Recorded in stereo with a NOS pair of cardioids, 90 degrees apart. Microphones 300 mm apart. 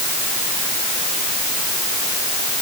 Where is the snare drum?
I don't hear a snare drum.